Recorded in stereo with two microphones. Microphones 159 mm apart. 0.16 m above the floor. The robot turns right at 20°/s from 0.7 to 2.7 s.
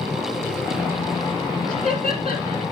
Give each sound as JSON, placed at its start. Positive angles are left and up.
{"t": 1.7, "sound": "laughter", "side_deg": -50, "distance_m": 3.0}